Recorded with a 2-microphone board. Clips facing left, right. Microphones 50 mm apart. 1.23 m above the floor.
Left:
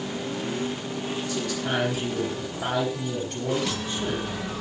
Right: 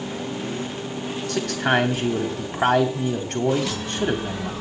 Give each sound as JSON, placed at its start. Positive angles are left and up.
{"t": 1.3, "sound": "a man speaking", "side_deg": -70, "distance_m": 3.5}